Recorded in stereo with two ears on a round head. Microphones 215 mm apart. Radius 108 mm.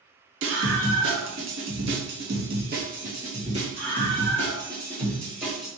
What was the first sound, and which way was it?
A scream, 60° right (ahead or behind).